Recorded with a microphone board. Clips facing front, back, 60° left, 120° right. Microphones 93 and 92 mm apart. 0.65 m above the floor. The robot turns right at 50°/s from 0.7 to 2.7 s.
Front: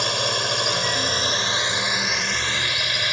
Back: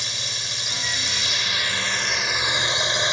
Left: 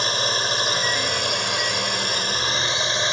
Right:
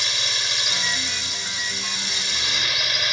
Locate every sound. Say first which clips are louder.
0.0 s a drone: front 12 dB, left 7 dB; 15° left; by 3.1 s 115° left